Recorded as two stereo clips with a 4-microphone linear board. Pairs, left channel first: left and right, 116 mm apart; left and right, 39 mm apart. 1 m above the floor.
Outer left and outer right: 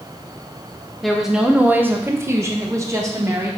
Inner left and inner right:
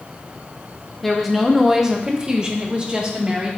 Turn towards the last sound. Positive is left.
turn(degrees=-25)  # may be behind; listen again after turning